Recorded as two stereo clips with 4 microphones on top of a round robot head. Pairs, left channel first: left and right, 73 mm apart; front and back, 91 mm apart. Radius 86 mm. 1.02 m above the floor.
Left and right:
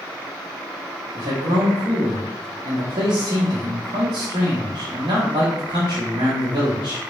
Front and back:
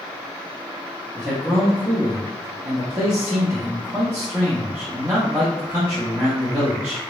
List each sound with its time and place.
1.1 s a man speaking: 115° right, 0.8 m